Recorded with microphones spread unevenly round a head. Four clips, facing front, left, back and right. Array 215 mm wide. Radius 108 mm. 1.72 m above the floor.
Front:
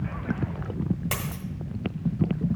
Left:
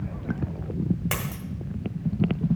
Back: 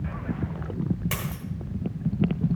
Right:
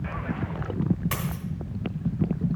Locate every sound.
1.1 s a dropped coin: 70° left, 1.7 m